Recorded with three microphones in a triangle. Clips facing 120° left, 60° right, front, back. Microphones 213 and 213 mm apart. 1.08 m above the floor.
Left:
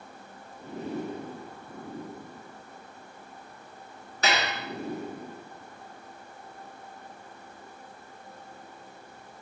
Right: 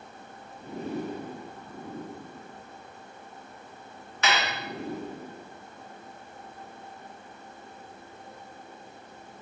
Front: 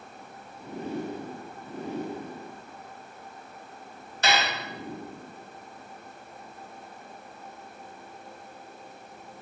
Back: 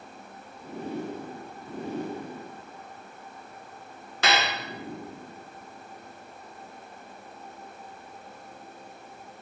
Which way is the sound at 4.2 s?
175° left.